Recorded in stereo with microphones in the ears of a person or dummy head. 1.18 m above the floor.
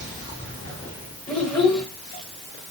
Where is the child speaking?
15° left (ahead or behind), 1.2 m.